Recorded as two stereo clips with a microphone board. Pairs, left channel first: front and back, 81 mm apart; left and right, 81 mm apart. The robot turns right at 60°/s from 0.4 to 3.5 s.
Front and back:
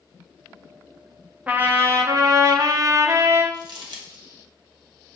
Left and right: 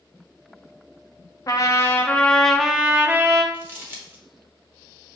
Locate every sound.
1.5 s a trumpet: 115° left, 0.6 m; by 3.4 s 125° right, 0.6 m
3.5 s crumpling: 155° right, 1.0 m